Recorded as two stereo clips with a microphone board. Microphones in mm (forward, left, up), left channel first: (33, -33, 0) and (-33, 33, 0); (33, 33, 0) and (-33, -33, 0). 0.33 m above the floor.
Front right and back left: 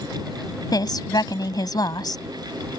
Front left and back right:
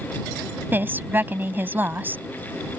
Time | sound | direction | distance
0.7 | a woman speaking | 70° right | ?